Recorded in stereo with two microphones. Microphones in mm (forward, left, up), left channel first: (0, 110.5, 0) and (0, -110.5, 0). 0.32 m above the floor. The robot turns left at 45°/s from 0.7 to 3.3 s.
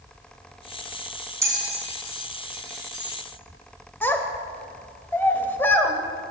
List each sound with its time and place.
1.4 s a bell: 10° right (ahead or behind), 1.2 m; by 3.2 s 75° right (ahead or behind), 1.2 m
4.0 s a child speaking: 10° left (ahead or behind), 0.7 m